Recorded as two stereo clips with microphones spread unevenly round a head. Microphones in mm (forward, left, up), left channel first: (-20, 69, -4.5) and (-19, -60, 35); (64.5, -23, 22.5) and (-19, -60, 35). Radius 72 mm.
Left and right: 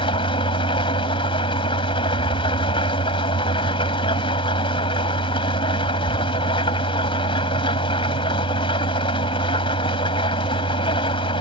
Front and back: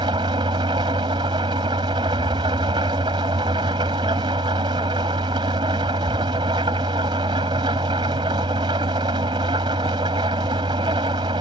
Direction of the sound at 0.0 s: 145° left.